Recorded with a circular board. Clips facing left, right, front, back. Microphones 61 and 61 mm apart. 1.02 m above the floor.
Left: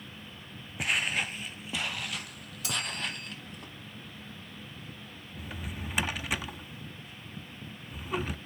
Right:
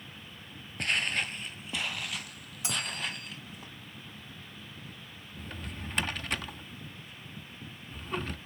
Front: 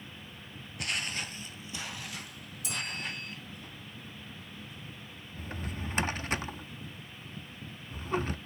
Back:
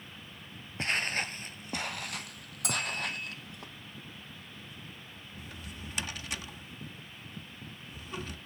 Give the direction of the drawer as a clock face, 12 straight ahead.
12 o'clock.